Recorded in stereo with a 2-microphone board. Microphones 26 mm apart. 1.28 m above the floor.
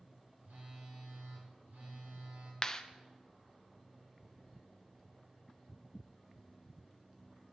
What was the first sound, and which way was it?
A phone buzzing, 65° right (ahead or behind).